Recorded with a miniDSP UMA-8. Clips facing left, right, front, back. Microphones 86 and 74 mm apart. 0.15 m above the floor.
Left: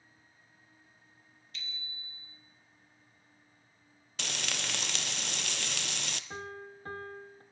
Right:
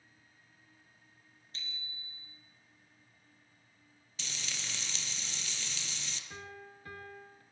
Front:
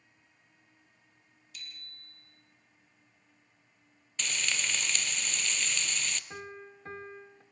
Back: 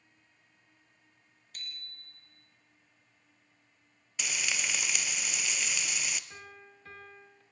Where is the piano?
50° left, 1.4 m.